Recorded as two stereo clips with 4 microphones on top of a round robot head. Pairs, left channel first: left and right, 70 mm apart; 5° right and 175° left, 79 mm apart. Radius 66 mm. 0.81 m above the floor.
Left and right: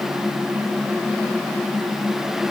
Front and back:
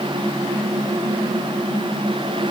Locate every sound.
Only background noise.